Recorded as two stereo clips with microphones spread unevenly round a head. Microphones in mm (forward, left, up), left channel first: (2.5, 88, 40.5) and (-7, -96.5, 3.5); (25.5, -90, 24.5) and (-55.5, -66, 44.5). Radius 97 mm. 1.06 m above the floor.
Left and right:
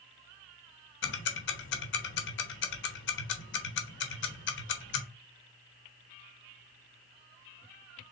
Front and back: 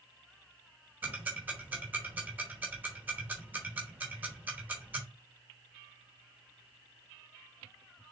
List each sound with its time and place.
1.0 s ticking: 85° left, 1.0 m